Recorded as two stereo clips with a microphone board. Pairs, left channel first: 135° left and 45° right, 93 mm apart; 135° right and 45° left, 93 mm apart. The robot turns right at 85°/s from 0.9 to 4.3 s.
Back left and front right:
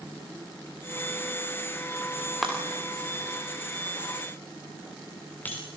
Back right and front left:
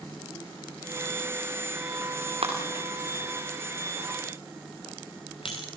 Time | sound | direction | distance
2.4 | breaking glass | 45° left | 5.5 m